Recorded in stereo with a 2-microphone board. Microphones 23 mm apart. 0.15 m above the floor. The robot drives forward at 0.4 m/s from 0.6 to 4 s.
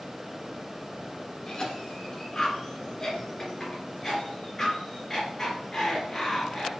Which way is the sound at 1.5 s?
30° left (ahead or behind).